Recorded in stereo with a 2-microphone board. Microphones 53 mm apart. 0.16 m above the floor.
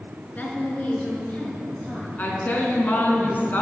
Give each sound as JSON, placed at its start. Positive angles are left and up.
{"t": 0.3, "sound": "a woman speaking", "side_deg": 35, "distance_m": 2.0}
{"t": 2.2, "sound": "a woman speaking", "side_deg": 35, "distance_m": 2.0}